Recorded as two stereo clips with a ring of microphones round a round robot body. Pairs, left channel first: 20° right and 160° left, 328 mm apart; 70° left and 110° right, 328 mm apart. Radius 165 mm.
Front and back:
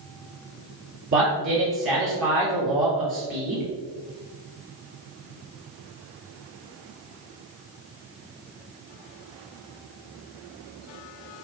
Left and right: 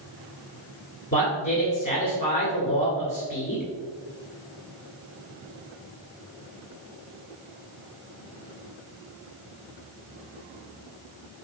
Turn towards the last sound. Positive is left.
turn(degrees=110)